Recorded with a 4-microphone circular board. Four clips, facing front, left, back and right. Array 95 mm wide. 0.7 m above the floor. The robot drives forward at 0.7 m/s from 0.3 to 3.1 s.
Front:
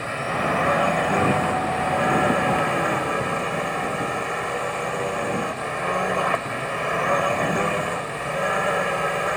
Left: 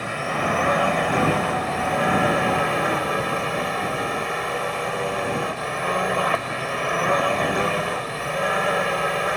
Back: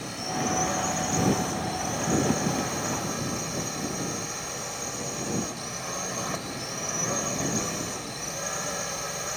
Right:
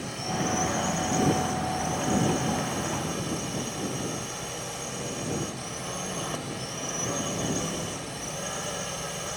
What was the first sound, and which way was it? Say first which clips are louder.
A drone: left 6 dB, front 6 dB; 50° left.